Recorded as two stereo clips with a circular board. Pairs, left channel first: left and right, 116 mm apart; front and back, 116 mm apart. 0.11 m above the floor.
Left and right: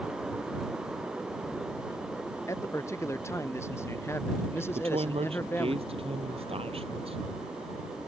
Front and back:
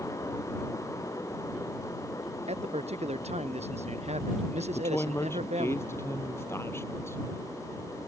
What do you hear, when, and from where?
2.5 s a man speaking: 155° left; by 5.8 s 160° left
4.8 s a woman speaking: 65° right